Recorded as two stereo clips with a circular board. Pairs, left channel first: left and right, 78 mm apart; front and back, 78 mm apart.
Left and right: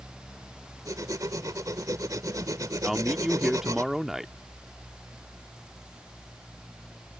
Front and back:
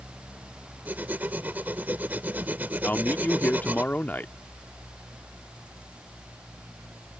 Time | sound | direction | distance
0.8 | writing | 120° right | ?
2.8 | a man speaking | 10° right | ?